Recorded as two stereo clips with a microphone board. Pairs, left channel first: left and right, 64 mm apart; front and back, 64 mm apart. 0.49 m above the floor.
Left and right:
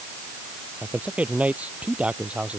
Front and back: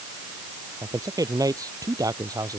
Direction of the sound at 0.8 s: 160° right.